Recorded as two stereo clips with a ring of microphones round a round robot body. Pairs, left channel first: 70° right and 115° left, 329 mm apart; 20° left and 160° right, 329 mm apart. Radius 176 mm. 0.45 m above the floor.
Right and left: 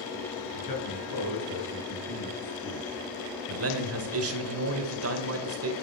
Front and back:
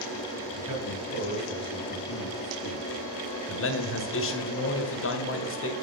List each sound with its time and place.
0.5 s a man speaking: 45° right, 6.5 m; by 3.0 s 30° right, 6 m
3.5 s a man speaking: 70° left, 2 m